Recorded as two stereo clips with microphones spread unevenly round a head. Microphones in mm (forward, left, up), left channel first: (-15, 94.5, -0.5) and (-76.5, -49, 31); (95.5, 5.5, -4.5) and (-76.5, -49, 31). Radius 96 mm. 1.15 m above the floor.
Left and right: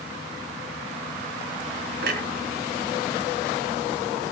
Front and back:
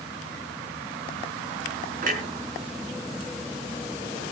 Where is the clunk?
120° right, 4 m.